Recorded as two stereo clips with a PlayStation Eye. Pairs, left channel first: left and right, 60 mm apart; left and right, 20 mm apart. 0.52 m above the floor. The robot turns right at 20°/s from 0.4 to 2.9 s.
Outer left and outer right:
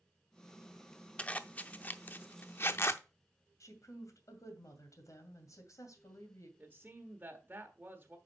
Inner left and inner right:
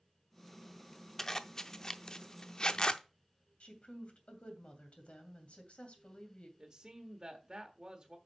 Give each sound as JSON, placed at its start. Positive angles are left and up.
{"t": 1.2, "sound": "a zipper", "side_deg": 20, "distance_m": 0.6}
{"t": 3.6, "sound": "a woman speaking", "side_deg": 65, "distance_m": 2.5}
{"t": 6.6, "sound": "a man speaking", "side_deg": -30, "distance_m": 1.2}